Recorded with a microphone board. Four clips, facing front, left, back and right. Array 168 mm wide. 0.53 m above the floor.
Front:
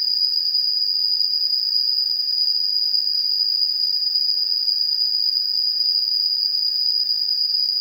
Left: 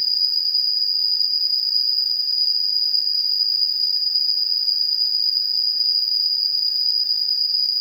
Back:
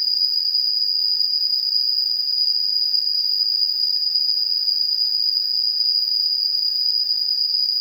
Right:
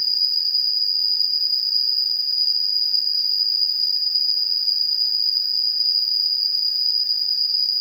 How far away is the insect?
About 1.3 m.